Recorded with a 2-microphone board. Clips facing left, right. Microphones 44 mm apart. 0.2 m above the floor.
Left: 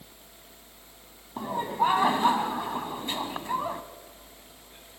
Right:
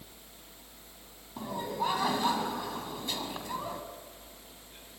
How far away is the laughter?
About 1.2 m.